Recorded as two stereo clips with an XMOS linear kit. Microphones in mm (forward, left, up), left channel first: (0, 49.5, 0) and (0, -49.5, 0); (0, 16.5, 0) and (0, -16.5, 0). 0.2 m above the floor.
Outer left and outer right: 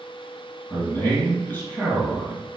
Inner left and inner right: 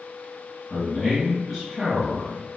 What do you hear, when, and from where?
0.7 s a man speaking: 15° left (ahead or behind), 2 m